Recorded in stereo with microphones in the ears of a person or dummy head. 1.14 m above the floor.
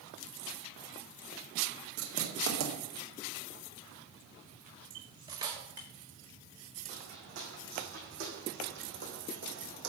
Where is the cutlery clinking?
20° right (ahead or behind), 1.4 m.